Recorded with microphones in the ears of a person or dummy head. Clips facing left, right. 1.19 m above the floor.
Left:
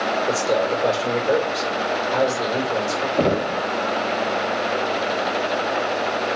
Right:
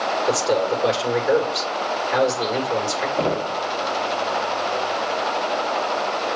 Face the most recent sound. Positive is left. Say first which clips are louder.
# left 4 dB
turn(degrees=20)  # may be behind; listen again after turning